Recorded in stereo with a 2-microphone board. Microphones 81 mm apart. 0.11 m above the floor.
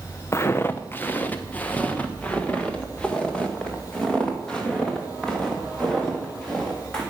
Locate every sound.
0.3 s footsteps: 35° left (ahead or behind), 0.7 m; by 7.0 s 5° left (ahead or behind), 4 m